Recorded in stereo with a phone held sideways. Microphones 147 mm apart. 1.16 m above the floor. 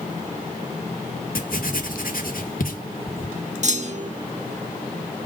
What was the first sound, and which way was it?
Writing, 80° left.